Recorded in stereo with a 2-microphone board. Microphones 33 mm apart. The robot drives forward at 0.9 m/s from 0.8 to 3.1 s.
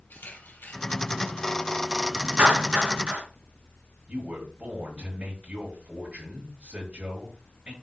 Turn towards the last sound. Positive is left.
turn(degrees=-50)  # may be behind; listen again after turning